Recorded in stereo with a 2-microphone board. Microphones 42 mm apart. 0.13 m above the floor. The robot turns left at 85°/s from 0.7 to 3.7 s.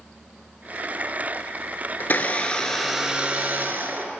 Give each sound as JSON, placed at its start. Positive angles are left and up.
{"t": 2.0, "sound": "a blender", "azimuth_deg": 75, "distance_m": 0.6}